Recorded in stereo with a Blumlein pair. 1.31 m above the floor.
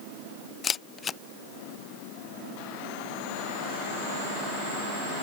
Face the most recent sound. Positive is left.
turn(degrees=20)